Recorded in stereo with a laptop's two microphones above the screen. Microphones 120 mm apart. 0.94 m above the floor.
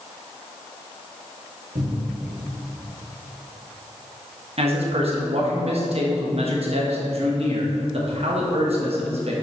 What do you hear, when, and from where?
1.8 s a cupboard door: 75° right (ahead or behind), 1.3 m
4.6 s a man speaking: 60° right (ahead or behind), 1.1 m